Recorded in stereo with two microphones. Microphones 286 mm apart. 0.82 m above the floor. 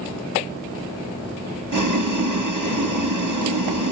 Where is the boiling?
85° right, 0.6 m.